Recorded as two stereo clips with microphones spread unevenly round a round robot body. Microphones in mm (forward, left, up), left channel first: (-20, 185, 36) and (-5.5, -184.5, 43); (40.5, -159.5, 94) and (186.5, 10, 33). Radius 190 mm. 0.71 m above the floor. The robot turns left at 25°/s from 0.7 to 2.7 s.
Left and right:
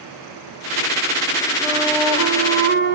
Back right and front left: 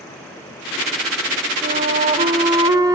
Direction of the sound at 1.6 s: Straight ahead.